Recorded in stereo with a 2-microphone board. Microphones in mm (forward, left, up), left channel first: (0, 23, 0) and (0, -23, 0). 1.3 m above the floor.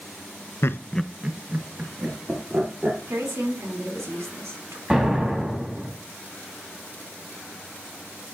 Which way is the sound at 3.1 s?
90° right.